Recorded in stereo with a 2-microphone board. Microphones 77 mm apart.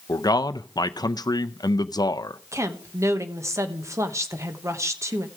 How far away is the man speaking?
About 0.5 m.